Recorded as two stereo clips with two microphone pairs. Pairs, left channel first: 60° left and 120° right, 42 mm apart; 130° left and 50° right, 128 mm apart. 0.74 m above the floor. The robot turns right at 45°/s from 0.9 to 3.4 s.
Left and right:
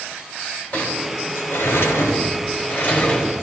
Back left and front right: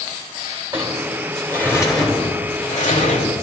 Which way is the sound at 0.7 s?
25° left.